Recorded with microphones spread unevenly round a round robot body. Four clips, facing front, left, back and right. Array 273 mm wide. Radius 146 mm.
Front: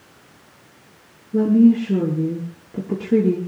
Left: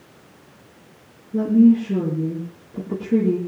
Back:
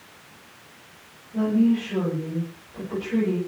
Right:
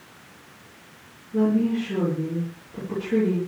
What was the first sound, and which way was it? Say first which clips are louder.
A woman speaking: left 7 dB, front 7 dB; 25° left.